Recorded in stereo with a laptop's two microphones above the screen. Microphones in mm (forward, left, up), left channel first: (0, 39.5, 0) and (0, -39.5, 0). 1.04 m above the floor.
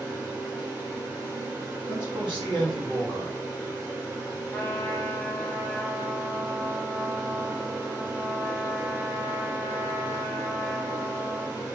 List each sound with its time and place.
0.0 s a fan: 25° right (ahead or behind), 0.8 m
1.9 s a man speaking: 70° right (ahead or behind), 1.1 m
4.5 s a trumpet: 25° left (ahead or behind), 0.5 m